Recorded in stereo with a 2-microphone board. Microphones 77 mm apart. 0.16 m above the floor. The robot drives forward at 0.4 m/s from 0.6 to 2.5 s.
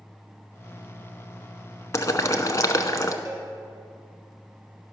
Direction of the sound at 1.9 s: 40° left (ahead or behind).